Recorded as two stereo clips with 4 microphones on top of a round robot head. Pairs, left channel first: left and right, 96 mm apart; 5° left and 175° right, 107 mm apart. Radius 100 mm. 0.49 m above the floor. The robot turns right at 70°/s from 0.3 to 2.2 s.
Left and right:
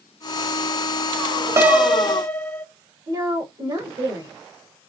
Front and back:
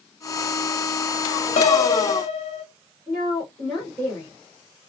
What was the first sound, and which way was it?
A piano, 25° right.